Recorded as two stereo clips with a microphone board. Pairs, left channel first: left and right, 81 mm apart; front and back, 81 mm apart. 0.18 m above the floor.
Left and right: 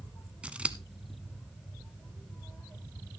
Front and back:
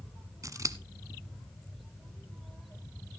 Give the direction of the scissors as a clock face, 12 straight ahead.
5 o'clock.